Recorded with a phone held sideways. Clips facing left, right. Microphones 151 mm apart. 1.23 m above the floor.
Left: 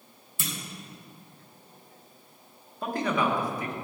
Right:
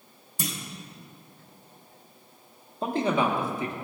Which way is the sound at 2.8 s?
25° right (ahead or behind).